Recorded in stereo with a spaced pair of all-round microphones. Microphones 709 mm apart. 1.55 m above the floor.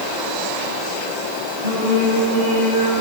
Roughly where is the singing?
Right.